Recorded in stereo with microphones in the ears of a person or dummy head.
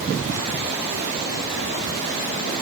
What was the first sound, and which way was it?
Only background noise.